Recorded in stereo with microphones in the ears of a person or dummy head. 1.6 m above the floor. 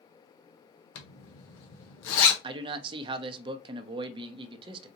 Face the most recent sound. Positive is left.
turn(degrees=-30)  # may be behind; listen again after turning